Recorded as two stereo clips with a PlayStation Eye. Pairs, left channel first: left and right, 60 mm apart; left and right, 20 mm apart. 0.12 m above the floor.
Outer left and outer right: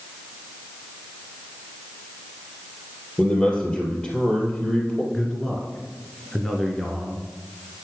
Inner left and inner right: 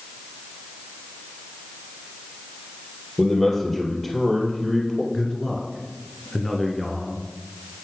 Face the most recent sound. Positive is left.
turn(degrees=5)  # may be behind; listen again after turning